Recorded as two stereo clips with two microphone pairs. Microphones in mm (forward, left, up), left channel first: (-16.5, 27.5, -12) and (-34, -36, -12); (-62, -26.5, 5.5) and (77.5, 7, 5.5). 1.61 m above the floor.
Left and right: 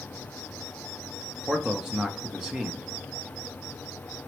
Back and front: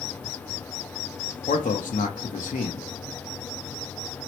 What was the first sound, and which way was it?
A man speaking, 175° left.